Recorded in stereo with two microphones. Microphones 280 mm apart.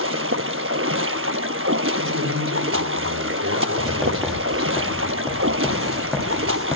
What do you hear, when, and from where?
0.0 s running water: 50° right (ahead or behind), 0.8 m
2.0 s a man speaking: 75° right (ahead or behind), 7.5 m
3.8 s writing: centre (ahead or behind), 7 m